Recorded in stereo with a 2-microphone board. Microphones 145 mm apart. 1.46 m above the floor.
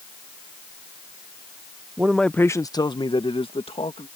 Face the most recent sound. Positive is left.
turn(degrees=45)  # may be behind; listen again after turning